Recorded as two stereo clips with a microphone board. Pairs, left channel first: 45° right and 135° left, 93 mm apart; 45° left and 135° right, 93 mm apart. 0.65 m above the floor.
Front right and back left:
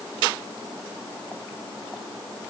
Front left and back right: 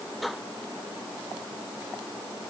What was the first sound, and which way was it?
Only background noise.